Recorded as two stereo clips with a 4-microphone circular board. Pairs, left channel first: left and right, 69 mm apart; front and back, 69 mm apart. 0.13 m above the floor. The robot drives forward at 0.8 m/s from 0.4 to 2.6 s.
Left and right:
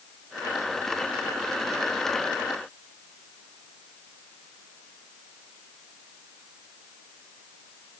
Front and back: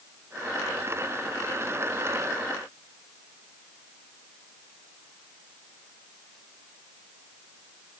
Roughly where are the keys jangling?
No keys jangling in this recording.